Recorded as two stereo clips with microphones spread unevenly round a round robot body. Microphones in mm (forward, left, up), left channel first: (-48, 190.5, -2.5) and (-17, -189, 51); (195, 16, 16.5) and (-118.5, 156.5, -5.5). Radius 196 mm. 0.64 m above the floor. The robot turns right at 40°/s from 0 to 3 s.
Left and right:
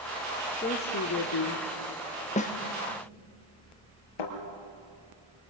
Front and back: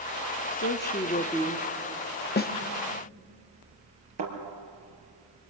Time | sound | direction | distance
0.5 | a woman speaking | 25° left | 1.1 m
2.4 | a snare drum | 35° left | 1.2 m
4.2 | a thud | 115° left | 5 m